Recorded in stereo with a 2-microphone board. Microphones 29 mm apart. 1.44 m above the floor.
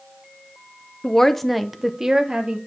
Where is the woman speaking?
20° left (ahead or behind), 0.8 m; by 2.6 s 35° right (ahead or behind), 1.3 m.